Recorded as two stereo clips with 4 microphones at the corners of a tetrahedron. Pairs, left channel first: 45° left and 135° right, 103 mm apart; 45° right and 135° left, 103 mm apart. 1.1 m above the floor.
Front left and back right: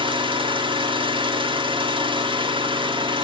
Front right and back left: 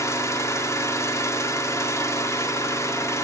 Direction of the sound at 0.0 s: 105° right.